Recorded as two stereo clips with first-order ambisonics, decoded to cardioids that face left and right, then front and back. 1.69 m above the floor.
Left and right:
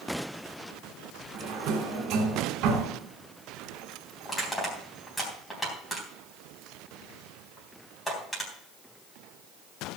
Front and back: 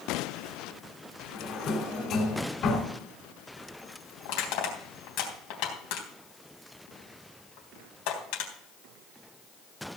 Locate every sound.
1.3 s a drawer: 55° right, 3.5 m
4.2 s crushing: 5° left, 3.5 m